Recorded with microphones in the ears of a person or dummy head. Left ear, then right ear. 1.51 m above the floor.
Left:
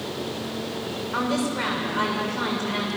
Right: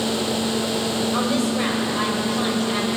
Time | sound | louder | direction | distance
1.1 | a woman speaking | right 3 dB | 60° left (ahead or behind) | 6.5 m